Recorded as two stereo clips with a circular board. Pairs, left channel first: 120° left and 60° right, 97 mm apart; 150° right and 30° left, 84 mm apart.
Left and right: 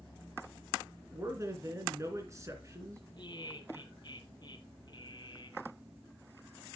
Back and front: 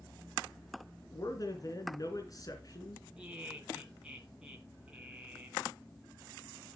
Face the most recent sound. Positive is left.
turn(degrees=110)